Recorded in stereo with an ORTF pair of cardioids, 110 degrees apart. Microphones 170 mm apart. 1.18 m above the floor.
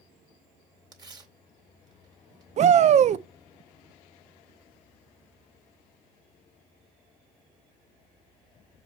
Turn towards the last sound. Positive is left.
turn(degrees=-45)